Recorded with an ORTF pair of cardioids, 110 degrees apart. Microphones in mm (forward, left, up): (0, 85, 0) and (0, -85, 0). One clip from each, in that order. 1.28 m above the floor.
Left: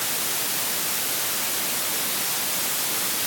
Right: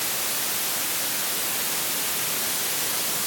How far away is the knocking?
I don't hear knocking.